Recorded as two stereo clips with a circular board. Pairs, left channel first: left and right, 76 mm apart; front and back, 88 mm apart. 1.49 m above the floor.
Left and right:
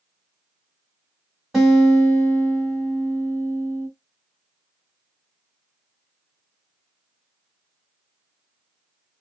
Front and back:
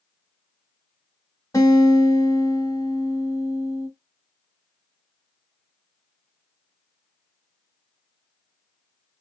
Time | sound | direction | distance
1.5 | a guitar | 5° right | 1.6 m